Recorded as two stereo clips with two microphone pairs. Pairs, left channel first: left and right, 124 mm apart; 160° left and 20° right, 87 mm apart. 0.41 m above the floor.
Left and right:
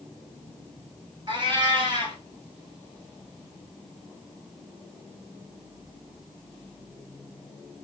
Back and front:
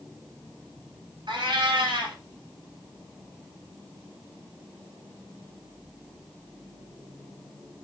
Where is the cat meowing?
40° right, 1.2 m.